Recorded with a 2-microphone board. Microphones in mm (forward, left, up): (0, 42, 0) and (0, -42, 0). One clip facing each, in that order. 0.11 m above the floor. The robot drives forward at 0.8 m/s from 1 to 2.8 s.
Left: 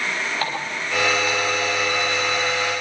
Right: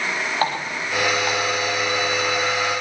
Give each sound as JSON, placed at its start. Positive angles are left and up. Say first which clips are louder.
{"t": 0.4, "sound": "a running tap", "louder": "right 3 dB", "side_deg": -35, "distance_m": 9.0}